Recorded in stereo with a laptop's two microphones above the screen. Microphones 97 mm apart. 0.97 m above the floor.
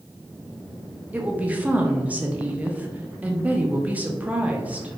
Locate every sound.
1.1 s a woman speaking: 15° right (ahead or behind), 0.7 m